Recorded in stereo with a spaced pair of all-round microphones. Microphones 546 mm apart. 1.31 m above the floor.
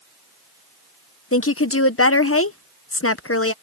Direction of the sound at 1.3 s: 25° left (ahead or behind).